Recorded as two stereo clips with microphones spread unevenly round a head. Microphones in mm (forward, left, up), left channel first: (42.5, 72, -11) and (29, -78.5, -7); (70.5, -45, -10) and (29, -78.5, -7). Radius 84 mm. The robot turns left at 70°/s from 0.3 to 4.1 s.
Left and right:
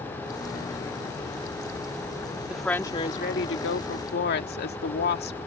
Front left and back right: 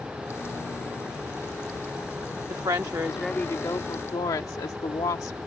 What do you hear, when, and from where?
2.5 s a woman speaking: straight behind; by 5.4 s 70° left